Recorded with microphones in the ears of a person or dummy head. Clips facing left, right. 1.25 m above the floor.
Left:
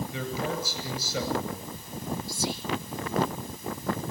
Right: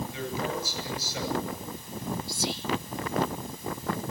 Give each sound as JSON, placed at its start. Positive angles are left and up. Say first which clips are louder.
{"t": 0.1, "sound": "a man speaking", "louder": "even", "side_deg": 65, "distance_m": 8.0}
{"t": 2.3, "sound": "whispering", "louder": "left 1 dB", "side_deg": -60, "distance_m": 2.0}